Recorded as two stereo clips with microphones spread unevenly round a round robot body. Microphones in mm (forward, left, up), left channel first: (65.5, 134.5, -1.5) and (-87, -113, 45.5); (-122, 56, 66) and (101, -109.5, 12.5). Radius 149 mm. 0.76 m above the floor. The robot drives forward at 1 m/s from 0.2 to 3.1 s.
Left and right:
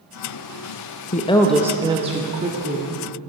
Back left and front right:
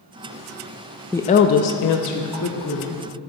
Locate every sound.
1.1 s a woman speaking: 45° left, 0.5 m; by 3.0 s 175° left, 1.7 m